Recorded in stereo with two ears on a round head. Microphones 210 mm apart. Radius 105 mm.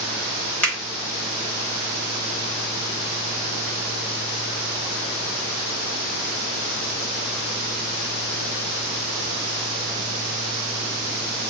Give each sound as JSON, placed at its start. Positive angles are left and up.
{"t": 0.6, "sound": "a finger snap", "side_deg": 5, "distance_m": 1.3}